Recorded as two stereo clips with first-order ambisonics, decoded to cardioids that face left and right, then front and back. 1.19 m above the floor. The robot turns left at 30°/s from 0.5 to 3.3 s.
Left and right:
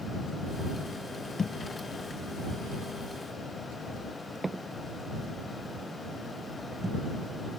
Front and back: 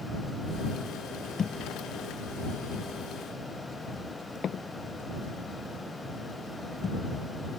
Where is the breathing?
I don't hear breathing.